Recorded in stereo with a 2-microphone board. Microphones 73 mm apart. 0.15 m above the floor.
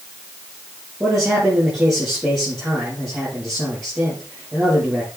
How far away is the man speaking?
About 5 m.